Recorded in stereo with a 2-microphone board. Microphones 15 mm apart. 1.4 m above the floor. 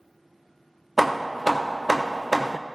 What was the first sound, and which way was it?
Hammering, 10° right (ahead or behind).